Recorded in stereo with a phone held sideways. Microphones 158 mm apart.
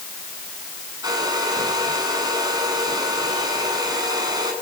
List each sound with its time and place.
1.0 s a hair dryer: 25° right (ahead or behind), 7 m